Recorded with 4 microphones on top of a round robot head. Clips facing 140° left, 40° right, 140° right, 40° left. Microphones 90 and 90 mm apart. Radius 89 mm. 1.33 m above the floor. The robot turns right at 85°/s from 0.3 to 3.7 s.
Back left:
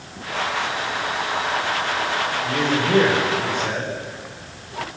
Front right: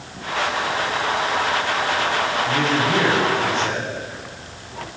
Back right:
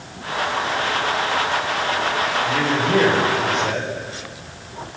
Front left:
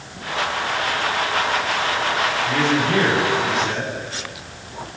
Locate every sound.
2.4 s a man speaking: 120° left, 8.5 m; by 3.9 s 135° right, 8.5 m